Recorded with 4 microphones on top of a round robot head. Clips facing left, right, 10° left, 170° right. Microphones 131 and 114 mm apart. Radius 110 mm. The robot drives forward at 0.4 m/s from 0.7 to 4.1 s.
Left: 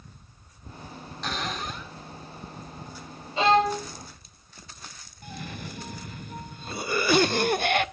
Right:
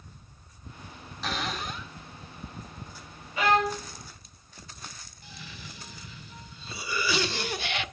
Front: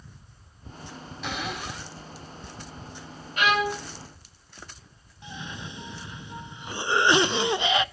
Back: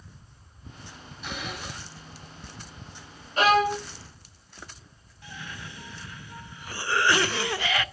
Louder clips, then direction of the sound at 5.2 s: Left 9 dB, front 3 dB; 75° left.